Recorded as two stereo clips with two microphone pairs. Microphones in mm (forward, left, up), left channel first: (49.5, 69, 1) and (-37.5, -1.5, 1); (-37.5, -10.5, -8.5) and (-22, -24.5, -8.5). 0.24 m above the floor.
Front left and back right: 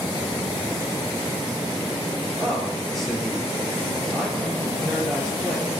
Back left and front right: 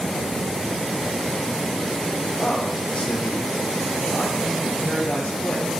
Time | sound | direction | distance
2.4 | a man speaking | 125° left | 4.5 m